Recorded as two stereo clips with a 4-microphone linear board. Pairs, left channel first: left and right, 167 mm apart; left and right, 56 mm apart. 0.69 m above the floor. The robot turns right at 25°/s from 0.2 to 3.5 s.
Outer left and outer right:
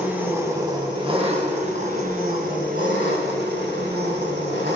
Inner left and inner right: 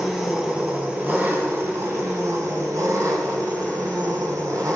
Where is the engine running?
170° right, 3 m; by 4.8 s 90° right, 3 m.